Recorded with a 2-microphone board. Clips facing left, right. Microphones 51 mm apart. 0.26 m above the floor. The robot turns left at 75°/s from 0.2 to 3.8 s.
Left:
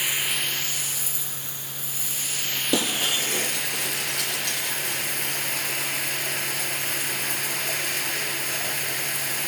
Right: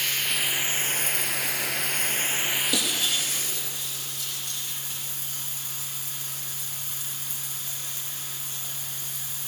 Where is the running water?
15° left, 1.0 m; by 9.5 s 105° left, 1.0 m.